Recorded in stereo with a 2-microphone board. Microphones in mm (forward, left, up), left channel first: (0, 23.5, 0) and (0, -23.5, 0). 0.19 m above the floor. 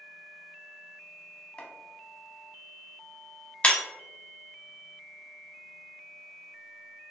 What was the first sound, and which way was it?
Chopping, 25° left (ahead or behind).